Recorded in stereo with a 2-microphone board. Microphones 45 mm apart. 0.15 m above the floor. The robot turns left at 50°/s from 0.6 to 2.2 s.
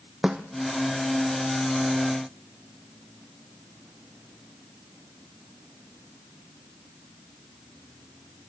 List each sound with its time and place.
0.2 s a snare drum: 20° right (ahead or behind), 1.5 m